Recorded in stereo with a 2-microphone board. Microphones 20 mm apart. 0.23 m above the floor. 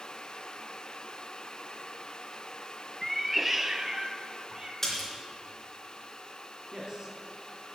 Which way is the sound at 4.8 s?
15° left (ahead or behind).